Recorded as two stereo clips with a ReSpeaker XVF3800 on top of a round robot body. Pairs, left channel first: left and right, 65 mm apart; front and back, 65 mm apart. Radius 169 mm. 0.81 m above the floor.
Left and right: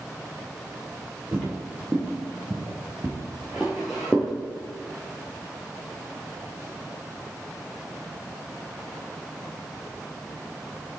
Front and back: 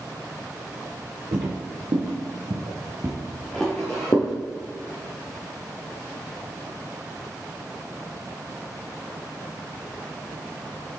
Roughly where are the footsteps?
Behind.